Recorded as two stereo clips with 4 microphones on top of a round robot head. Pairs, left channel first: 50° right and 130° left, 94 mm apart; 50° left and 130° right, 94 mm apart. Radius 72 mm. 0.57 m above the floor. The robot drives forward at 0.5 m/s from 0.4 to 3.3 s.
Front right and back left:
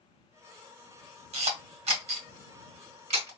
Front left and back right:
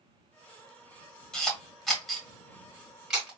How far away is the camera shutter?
About 2 m.